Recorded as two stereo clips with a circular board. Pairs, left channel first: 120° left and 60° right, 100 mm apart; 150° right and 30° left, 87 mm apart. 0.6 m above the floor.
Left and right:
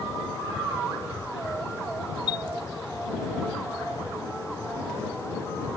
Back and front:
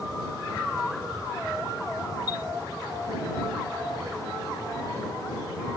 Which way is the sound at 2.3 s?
165° left.